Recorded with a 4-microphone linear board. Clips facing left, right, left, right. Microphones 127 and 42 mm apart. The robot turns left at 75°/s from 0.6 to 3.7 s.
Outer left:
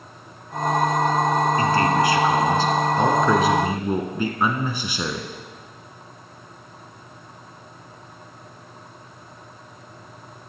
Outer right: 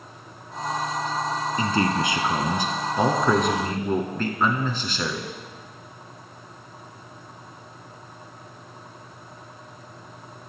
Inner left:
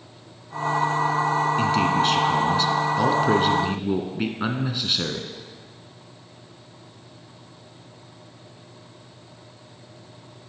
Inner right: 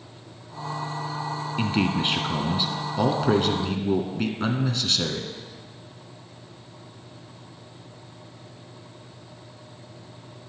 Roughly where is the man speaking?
Centre.